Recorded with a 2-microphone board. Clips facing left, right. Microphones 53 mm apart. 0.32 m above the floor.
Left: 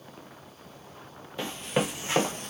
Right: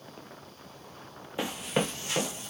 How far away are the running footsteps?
About 1.0 m.